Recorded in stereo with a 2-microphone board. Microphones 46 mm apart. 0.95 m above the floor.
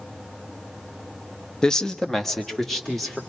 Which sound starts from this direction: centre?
A man speaking, at 1.6 s.